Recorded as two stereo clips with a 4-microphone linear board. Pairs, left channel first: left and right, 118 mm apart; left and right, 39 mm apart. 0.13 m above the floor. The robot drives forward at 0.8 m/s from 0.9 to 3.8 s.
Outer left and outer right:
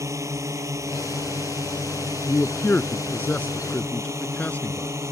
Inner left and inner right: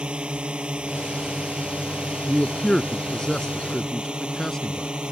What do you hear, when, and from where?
0.0 s a drone: 25° right (ahead or behind)
2.3 s a man speaking: 15° left (ahead or behind)